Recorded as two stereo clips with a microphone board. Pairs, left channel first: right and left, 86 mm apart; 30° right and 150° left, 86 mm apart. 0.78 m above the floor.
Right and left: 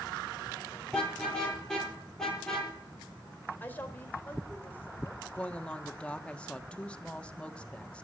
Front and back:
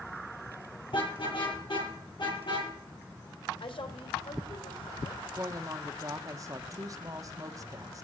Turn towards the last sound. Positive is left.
turn(degrees=-165)